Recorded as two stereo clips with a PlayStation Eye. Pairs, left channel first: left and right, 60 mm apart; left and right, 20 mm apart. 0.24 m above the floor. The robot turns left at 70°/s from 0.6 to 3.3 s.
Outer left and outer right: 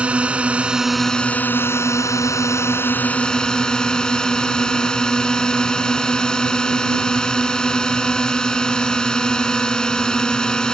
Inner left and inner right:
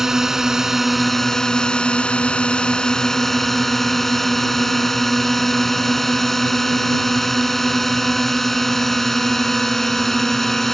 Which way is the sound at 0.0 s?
160° right.